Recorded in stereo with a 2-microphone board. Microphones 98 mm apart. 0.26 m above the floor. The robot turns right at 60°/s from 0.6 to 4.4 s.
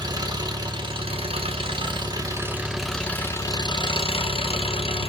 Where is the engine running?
135° right, 1.0 m; by 5.1 s 90° left, 1.0 m.